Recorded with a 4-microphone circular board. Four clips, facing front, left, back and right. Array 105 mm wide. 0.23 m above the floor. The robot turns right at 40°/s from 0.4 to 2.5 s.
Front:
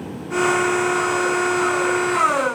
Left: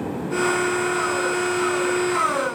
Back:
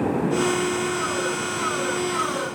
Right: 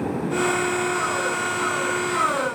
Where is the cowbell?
No cowbell in this recording.